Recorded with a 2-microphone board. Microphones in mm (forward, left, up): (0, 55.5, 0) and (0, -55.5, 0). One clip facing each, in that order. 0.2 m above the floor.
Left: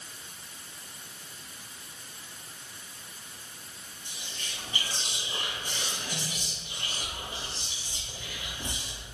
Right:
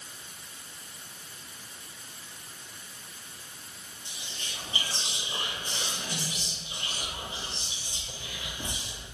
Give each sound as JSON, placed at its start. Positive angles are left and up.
{"t": 4.0, "sound": "whispering", "side_deg": -25, "distance_m": 1.4}